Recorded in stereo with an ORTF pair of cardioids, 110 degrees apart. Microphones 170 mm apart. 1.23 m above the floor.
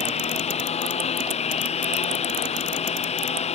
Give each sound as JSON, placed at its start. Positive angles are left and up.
{"t": 0.0, "sound": "a lawn mower", "azimuth_deg": 40}